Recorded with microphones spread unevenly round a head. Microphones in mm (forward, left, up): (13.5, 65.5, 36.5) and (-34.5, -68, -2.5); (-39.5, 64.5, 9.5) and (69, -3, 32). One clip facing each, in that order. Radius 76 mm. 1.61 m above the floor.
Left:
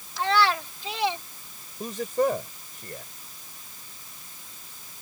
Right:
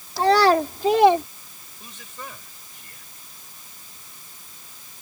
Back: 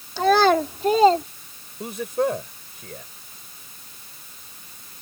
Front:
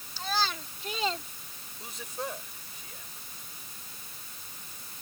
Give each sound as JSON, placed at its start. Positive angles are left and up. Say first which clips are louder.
{"t": 0.2, "sound": "a child speaking", "louder": "right 7 dB, back 16 dB", "azimuth_deg": -165}
{"t": 1.8, "sound": "a man speaking", "louder": "left 17 dB, back 15 dB", "azimuth_deg": 115}